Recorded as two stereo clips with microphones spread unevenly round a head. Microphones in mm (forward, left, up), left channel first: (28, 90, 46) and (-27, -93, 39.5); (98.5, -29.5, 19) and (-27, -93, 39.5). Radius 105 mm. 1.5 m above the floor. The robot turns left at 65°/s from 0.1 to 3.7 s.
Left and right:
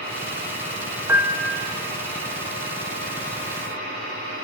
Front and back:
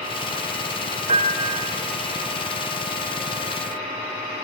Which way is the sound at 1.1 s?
175° left.